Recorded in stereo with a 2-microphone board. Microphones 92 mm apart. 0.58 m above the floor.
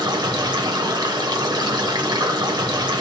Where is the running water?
50° right (ahead or behind), 0.7 m.